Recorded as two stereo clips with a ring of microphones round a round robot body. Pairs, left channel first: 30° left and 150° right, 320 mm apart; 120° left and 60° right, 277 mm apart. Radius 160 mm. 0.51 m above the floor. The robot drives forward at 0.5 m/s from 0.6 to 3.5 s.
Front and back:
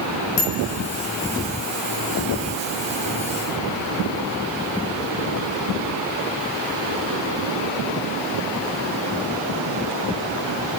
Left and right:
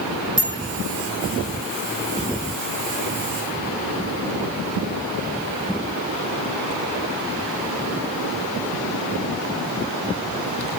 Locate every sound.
0.4 s a bicycle bell: 15° right, 8.5 m